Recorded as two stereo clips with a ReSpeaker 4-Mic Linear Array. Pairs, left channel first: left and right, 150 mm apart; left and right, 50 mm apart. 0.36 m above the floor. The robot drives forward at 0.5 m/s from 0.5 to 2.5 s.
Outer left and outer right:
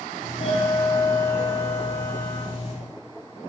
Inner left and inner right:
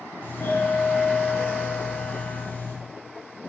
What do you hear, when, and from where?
0.2 s a doorbell: 45° left (ahead or behind), 3 m; by 2.7 s 40° left (ahead or behind), 3.5 m